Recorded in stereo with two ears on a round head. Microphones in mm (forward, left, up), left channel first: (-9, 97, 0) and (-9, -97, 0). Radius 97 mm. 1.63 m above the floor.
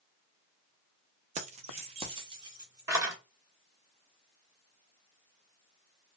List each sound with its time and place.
1.4 s keys jangling: 30° right (ahead or behind), 0.6 m; by 3.2 s 15° right (ahead or behind), 1.5 m